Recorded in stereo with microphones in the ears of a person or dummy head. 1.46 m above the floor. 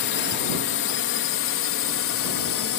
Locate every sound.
0.0 s a drone: 55° left (ahead or behind); by 2.8 s 65° left (ahead or behind)